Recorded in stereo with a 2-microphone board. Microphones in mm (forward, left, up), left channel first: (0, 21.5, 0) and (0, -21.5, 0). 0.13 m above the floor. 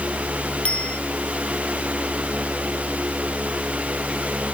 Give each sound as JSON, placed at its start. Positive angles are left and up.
{"t": 0.7, "sound": "a bicycle bell", "side_deg": 35}